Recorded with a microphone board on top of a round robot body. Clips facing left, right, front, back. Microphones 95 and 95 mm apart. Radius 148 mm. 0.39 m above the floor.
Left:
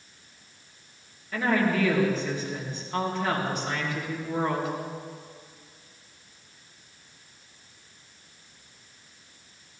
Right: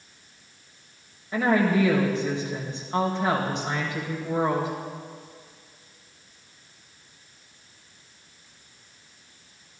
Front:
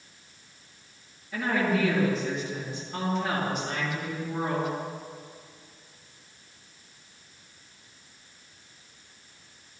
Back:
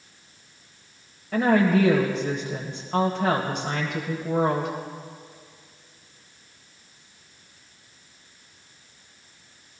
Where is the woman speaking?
160° right, 2.5 m.